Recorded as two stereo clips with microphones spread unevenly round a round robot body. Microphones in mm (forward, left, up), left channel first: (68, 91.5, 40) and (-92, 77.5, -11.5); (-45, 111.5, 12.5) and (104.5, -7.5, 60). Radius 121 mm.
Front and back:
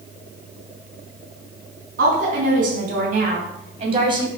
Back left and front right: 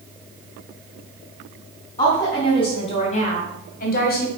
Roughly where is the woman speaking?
Behind right.